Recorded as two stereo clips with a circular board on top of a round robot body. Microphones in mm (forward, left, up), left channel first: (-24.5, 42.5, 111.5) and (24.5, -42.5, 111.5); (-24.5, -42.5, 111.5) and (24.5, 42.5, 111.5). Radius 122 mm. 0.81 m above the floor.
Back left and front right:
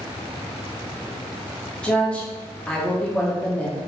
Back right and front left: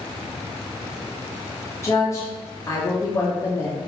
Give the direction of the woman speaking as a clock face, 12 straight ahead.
5 o'clock.